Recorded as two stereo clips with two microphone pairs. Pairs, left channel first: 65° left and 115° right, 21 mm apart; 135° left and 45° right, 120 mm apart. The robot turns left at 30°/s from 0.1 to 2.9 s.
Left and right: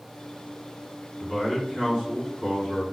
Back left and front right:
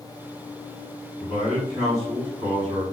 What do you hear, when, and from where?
1.2 s a man speaking: 65° right, 2.0 m; by 2.8 s 115° right, 2.0 m